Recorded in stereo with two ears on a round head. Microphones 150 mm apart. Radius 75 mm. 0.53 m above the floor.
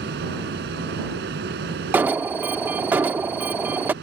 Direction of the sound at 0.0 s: 70° right (ahead or behind).